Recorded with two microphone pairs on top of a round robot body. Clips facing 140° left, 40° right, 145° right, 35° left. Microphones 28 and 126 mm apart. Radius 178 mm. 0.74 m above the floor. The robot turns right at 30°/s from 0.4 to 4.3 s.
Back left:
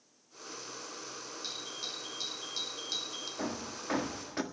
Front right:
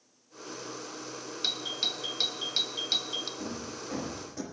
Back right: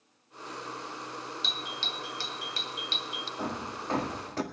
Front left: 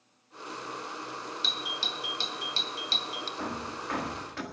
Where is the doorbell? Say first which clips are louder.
Front right 11 dB, front left 1 dB; 50° right, 1.9 m; by 3.3 s 5° left, 1.9 m.